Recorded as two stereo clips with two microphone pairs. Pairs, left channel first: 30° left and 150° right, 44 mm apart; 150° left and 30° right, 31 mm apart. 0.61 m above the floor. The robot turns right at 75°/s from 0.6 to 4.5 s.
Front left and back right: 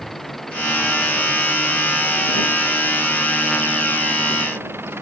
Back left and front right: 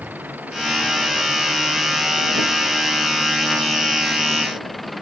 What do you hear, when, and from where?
0.0 s an engine running: 55° right; by 5.0 s 125° right